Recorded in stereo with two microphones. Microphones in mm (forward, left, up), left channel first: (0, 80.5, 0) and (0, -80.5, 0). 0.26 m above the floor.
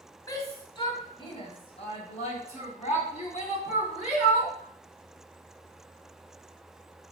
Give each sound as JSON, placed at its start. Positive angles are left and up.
{"t": 0.3, "sound": "a shout", "side_deg": 20, "distance_m": 1.9}